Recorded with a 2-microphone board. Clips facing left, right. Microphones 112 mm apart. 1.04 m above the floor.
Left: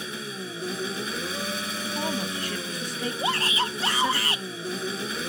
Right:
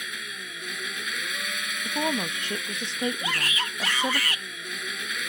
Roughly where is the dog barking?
No dog barking in this recording.